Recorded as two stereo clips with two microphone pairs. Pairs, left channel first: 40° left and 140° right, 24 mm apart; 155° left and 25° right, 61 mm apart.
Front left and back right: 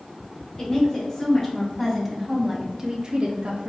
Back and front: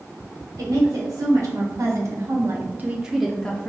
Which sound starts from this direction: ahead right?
A woman speaking, at 0.6 s.